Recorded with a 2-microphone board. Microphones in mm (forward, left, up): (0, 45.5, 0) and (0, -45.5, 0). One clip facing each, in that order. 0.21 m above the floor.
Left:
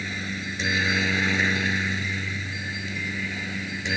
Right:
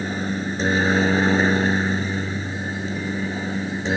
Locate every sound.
0.0 s a helicopter: 35° right (ahead or behind)